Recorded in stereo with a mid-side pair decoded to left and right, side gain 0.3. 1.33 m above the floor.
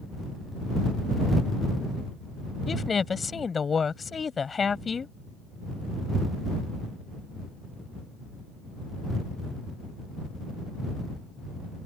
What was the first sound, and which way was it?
A woman speaking, 50° left.